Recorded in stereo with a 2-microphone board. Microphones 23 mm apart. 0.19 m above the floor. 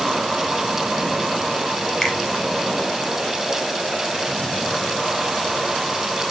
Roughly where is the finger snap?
Left.